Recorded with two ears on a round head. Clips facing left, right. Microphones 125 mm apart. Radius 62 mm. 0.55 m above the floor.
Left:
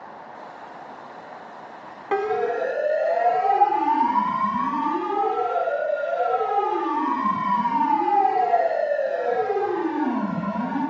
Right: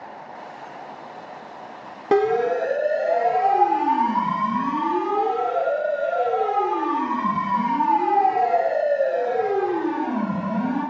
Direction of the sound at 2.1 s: 50° right (ahead or behind).